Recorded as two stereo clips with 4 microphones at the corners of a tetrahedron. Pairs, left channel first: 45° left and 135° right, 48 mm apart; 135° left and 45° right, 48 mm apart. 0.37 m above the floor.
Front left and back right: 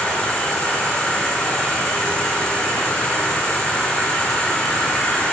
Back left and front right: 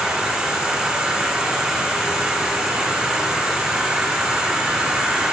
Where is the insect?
5° right, 2 m.